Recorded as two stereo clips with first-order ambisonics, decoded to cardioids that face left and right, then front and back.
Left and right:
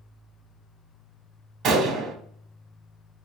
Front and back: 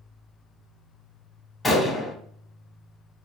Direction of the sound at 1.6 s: 80° right.